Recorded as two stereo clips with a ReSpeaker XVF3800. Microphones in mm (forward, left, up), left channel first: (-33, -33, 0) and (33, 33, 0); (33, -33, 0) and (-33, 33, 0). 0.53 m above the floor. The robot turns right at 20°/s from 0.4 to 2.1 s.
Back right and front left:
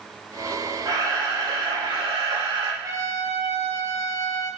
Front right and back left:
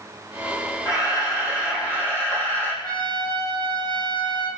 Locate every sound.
0.8 s a camera shutter: straight ahead, 5 m; by 2.7 s 25° left, 5 m
2.8 s a trumpet: 10° right, 6.5 m